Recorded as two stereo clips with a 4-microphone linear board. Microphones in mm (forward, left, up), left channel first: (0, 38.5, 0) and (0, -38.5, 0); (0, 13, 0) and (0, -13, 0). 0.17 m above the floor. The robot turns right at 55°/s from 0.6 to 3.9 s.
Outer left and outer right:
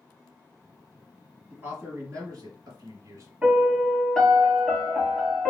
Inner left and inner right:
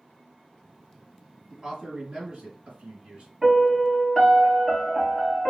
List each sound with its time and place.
1.5 s a man speaking: 160° right, 3 m; by 3.3 s 60° right, 3 m
3.4 s a piano: 25° right (ahead or behind), 1.6 m; by 5.5 s centre (ahead or behind), 1.6 m